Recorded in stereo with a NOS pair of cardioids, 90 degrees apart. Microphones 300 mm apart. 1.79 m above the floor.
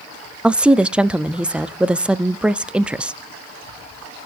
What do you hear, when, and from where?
0.4 s a woman speaking: 5° right, 0.6 m